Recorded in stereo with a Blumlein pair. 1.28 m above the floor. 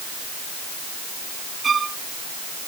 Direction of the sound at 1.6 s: 20° right.